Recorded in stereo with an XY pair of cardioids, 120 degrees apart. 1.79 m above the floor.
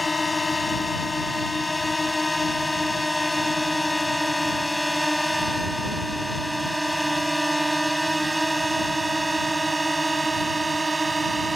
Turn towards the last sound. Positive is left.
turn(degrees=-20)